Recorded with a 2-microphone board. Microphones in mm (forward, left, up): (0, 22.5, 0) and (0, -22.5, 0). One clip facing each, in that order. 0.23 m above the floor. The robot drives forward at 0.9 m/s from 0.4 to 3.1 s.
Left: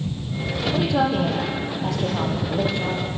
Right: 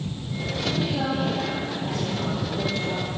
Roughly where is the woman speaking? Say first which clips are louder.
Left 7 dB; left.